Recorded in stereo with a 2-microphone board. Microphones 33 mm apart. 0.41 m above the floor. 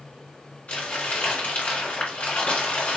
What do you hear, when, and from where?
0.7 s crumpling: 45° left (ahead or behind), 1.8 m